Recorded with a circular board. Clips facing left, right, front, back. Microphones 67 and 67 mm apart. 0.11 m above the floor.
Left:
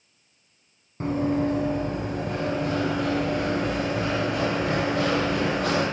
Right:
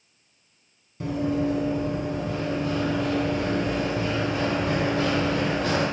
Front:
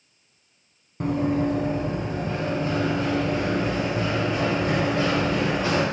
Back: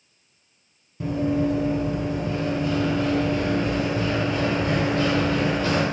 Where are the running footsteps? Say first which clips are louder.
Left 1 dB, even; 40° left, 1.8 m; by 5.8 s 75° left, 5 m.